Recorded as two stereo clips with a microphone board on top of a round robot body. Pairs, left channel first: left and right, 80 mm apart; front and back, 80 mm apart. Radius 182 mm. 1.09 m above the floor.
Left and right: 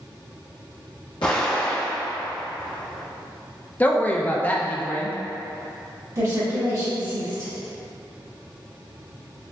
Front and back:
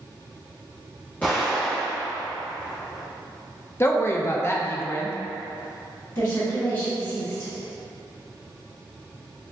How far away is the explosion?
About 0.9 m.